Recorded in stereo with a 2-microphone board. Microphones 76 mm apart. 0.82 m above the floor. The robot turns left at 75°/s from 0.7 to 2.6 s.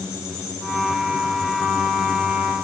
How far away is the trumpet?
No trumpet in this recording.